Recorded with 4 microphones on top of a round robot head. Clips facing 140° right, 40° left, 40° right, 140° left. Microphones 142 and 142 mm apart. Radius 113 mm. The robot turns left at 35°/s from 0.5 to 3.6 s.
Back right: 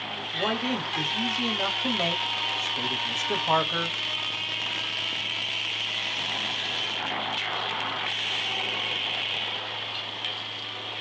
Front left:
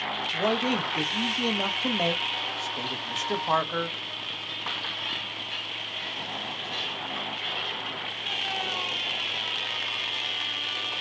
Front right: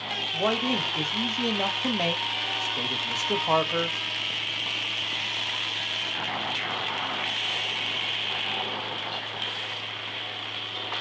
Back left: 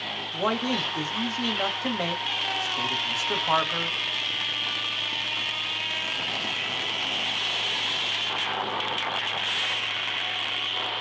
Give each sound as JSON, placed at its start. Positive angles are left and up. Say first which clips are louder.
{"t": 0.3, "sound": "a man speaking", "louder": "front left 2 dB, even", "azimuth_deg": 40, "distance_m": 1.0}